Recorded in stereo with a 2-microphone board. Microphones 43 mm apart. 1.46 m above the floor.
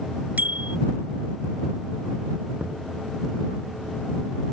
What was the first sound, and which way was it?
A bicycle bell, 40° right (ahead or behind).